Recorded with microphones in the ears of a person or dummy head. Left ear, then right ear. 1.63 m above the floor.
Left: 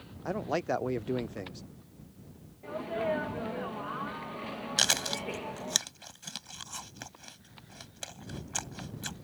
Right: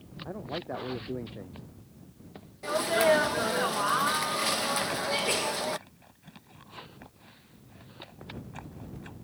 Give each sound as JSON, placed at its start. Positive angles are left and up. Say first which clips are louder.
{"t": 0.2, "sound": "a man speaking", "louder": "left 6 dB", "side_deg": 70}
{"t": 2.6, "sound": "a sneeze", "louder": "right 9 dB", "side_deg": -65}
{"t": 4.8, "sound": "chewing", "louder": "left 1 dB", "side_deg": 80}